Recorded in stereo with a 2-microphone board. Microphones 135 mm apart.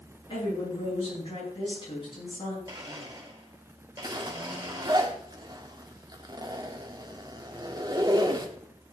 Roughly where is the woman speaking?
Left.